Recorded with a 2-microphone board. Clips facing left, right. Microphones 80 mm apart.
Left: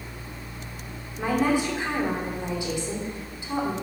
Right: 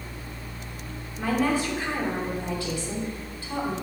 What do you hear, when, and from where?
1.2 s a woman speaking: 20° left (ahead or behind), 2.5 m